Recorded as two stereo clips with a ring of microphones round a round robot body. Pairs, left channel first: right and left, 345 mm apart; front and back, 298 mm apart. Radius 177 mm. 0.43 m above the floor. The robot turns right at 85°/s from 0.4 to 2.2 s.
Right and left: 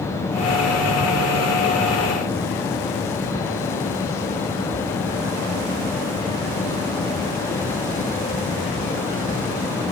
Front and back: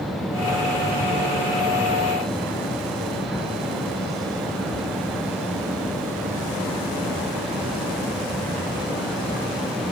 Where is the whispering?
No whispering in this recording.